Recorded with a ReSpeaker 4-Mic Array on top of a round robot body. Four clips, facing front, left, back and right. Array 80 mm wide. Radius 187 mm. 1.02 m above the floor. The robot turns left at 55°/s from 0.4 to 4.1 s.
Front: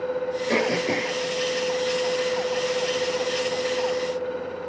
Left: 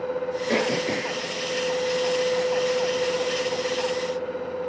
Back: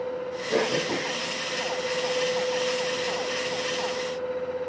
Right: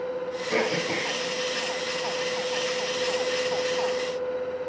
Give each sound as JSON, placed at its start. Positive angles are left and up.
{"t": 0.5, "sound": "throat clearing", "azimuth_deg": 55, "distance_m": 9.0}